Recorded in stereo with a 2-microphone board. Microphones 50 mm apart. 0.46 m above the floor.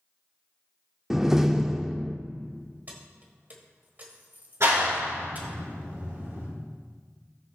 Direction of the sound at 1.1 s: 10° right (ahead or behind).